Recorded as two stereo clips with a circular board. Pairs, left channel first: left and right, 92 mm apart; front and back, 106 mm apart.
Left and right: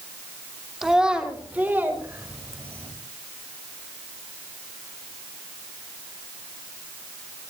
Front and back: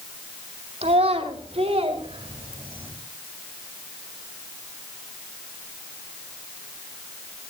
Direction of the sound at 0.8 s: 175° right.